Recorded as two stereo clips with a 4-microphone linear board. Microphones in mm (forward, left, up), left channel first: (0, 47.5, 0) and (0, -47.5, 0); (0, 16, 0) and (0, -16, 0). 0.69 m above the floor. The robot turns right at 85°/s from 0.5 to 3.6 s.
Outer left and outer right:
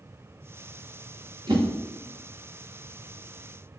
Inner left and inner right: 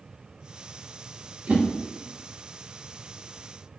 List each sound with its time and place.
1.5 s a whoosh: 60° right (ahead or behind), 1.3 m; by 1.6 s 45° right (ahead or behind), 1.3 m